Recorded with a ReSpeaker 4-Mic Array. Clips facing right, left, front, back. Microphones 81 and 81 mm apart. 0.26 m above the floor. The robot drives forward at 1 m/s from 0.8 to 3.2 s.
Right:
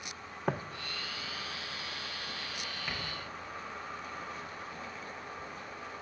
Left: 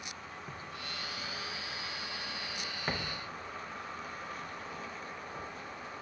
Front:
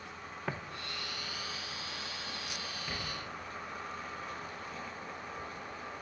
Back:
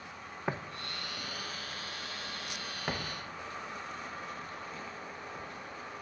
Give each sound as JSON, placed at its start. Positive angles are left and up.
{"t": 0.5, "sound": "footsteps", "azimuth_deg": -105, "distance_m": 0.8}